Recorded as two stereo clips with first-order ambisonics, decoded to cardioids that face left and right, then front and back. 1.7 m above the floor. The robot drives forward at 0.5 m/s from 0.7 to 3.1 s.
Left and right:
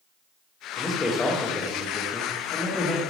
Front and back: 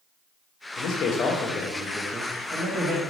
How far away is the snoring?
No snoring in this recording.